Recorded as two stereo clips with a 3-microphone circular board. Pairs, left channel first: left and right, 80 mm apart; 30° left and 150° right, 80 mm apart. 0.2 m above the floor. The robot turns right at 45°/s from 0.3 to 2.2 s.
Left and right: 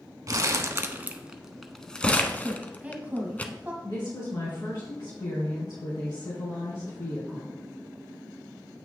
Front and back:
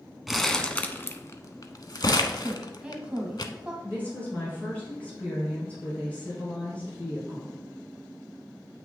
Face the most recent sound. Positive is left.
turn(degrees=95)